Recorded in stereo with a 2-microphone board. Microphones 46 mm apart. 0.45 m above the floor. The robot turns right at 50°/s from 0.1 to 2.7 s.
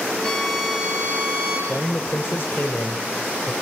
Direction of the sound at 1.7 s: 50° left.